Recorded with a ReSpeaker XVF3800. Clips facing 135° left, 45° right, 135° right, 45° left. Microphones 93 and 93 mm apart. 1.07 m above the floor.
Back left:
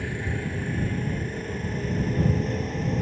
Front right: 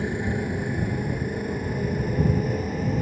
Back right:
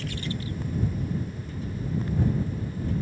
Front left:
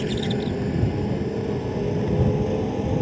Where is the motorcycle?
25° left; by 3.0 s 40° left.